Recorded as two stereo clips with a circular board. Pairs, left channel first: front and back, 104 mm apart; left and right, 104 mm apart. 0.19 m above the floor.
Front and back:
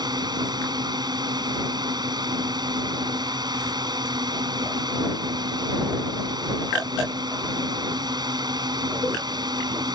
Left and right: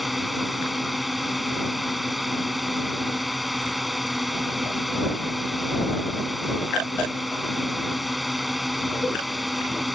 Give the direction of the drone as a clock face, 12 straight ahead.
6 o'clock.